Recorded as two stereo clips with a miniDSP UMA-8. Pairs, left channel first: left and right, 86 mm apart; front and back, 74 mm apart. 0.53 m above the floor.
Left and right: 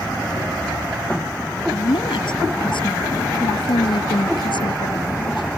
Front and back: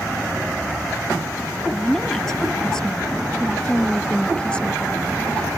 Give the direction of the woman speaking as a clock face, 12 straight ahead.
9 o'clock.